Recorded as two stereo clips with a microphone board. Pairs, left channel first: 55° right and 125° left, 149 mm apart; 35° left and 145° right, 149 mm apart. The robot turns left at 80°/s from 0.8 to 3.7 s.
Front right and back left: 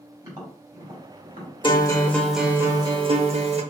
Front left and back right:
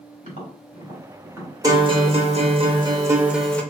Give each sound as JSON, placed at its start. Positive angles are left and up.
{"t": 0.2, "sound": "tapping", "azimuth_deg": -175, "distance_m": 1.6}
{"t": 1.6, "sound": "a guitar", "azimuth_deg": -90, "distance_m": 0.6}